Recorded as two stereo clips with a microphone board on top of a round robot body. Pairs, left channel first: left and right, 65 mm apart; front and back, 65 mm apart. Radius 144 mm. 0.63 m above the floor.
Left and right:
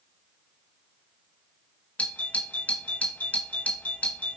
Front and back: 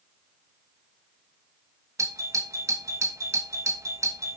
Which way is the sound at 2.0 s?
155° left.